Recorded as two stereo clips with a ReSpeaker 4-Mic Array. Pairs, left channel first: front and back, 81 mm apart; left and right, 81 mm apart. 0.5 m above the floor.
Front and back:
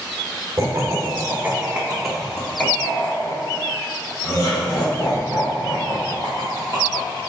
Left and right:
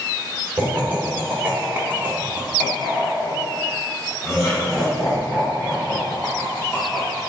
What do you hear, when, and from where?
0.6 s laughter: 145° right, 1.2 m; by 7.2 s 10° left, 2.5 m